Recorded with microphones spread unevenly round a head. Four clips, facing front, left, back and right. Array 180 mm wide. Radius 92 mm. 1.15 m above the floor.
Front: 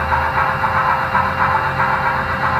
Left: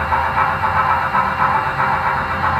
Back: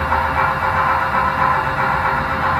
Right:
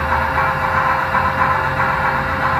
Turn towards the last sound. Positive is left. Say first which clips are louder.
# left 1 dB, even
turn(degrees=-150)